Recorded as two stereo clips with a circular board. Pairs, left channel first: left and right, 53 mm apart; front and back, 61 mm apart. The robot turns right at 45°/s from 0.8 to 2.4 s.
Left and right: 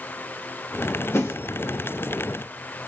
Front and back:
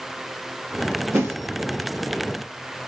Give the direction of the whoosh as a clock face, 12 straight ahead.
8 o'clock.